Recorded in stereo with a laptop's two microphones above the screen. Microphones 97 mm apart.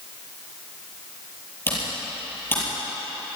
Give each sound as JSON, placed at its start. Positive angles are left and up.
{"t": 1.7, "sound": "typing on a keyboard", "side_deg": 20, "distance_m": 7.0}